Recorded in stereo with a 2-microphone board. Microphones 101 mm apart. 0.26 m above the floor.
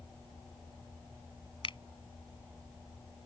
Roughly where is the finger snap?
Left.